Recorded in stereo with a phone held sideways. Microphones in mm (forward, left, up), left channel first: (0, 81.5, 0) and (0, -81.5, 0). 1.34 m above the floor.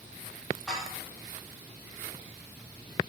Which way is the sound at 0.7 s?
Centre (ahead or behind).